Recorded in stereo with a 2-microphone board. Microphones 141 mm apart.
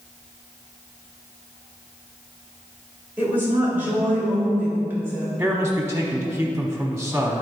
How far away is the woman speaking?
About 2.5 m.